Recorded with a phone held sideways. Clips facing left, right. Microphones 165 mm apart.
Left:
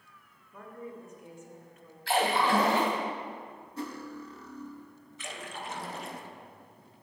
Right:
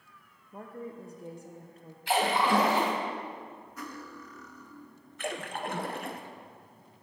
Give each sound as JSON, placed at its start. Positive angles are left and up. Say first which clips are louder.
{"t": 0.5, "sound": "a woman speaking", "louder": "right 2 dB", "side_deg": -35, "distance_m": 0.6}
{"t": 2.1, "sound": "a splash", "louder": "even", "side_deg": -15, "distance_m": 1.9}
{"t": 3.8, "sound": "cutlery clinking", "louder": "left 6 dB", "side_deg": 25, "distance_m": 0.6}
{"t": 5.2, "sound": "a splash", "louder": "right 6 dB", "side_deg": -55, "distance_m": 0.5}